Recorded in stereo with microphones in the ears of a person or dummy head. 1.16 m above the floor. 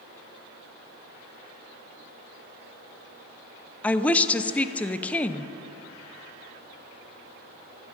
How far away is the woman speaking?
About 0.6 m.